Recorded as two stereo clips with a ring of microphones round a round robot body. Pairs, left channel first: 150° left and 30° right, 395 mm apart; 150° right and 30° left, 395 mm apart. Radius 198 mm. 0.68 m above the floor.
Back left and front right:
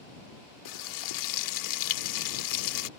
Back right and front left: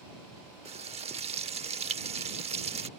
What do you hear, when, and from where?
0.7 s frying: 105° left